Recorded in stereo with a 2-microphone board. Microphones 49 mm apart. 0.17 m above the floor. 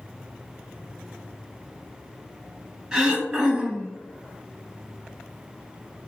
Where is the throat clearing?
15° right (ahead or behind), 1.0 m.